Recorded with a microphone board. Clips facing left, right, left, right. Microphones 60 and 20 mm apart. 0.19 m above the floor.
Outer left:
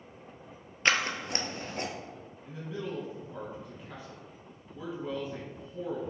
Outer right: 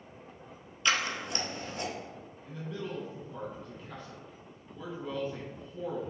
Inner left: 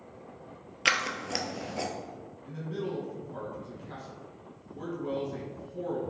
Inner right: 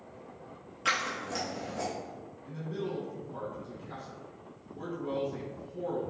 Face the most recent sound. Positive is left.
turn(degrees=10)  # may be behind; listen again after turning